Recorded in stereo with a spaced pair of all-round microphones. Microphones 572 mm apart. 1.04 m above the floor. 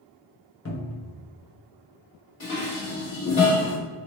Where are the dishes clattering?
55° left (ahead or behind), 1.3 m.